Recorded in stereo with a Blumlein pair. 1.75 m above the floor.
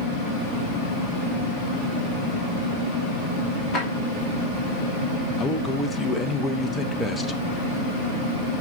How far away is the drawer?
About 2.5 m.